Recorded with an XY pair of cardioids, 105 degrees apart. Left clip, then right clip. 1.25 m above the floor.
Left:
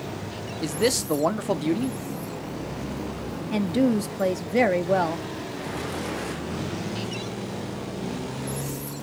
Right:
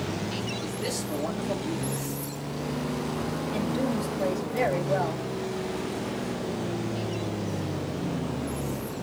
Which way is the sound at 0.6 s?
70° left.